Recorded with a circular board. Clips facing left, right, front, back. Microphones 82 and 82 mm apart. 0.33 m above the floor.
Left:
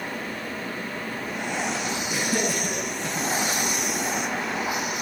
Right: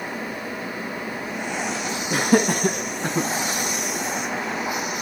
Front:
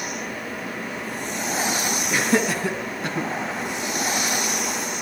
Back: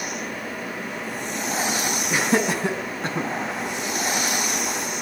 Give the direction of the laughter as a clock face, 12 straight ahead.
4 o'clock.